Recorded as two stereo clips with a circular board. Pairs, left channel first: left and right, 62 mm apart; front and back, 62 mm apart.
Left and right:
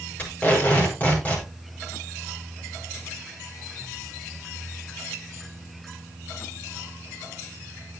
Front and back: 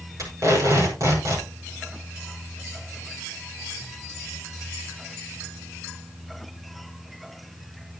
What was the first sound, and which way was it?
Tape being pulled, 155° left.